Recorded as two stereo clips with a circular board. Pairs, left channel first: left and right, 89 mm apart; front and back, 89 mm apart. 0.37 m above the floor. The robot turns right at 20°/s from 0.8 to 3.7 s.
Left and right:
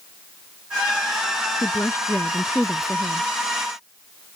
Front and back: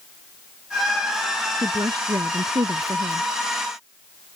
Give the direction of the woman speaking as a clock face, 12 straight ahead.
7 o'clock.